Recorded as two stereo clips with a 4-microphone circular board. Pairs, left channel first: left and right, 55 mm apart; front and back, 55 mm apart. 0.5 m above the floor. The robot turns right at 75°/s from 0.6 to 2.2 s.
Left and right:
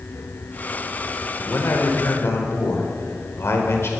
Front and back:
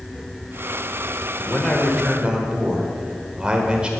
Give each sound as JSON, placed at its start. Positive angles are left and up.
{"t": 1.4, "sound": "a man speaking", "azimuth_deg": 50, "distance_m": 1.5}